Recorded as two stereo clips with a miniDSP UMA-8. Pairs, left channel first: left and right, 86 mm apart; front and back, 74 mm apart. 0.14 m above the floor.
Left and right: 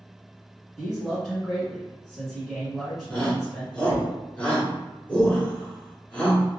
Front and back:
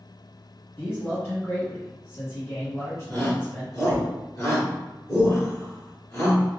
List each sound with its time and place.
0.8 s a man speaking: straight ahead, 1.4 m
3.1 s a shout: 25° left, 1.5 m